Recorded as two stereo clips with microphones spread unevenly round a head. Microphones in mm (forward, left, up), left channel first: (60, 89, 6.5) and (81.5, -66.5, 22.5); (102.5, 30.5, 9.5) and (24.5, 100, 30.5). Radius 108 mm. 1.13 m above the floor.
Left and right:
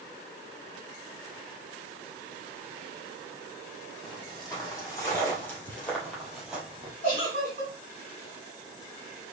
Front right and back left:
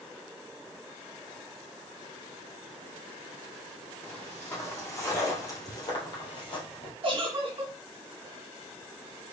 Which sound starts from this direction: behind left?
A giggle, at 7.0 s.